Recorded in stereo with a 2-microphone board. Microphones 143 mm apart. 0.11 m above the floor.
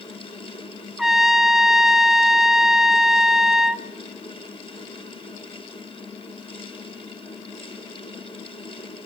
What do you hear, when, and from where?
1.0 s a trumpet: centre (ahead or behind), 0.6 m